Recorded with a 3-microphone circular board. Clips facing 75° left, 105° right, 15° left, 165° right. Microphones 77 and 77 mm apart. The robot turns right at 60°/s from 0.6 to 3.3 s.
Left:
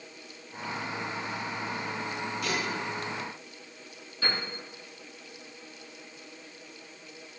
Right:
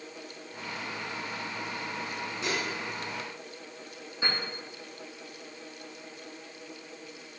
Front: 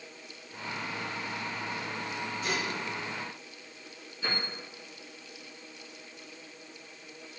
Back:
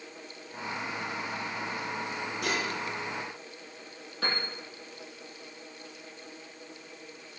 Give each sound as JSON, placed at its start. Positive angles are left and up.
{"t": 2.4, "sound": "dishes clattering", "azimuth_deg": -170, "distance_m": 8.0}
{"t": 4.2, "sound": "a piano", "azimuth_deg": -175, "distance_m": 8.5}